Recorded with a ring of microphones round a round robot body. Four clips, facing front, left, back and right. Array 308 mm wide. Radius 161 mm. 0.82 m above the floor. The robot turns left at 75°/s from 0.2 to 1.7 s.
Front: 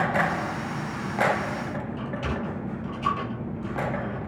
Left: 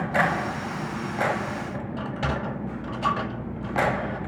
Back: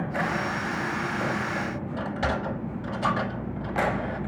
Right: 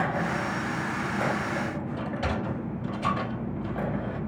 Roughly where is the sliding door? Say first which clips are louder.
Left 3 dB, back 6 dB; behind left.